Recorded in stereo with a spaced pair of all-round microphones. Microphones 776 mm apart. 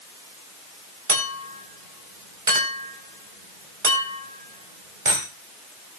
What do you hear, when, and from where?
1.1 s a clink: 85° right, 4.5 m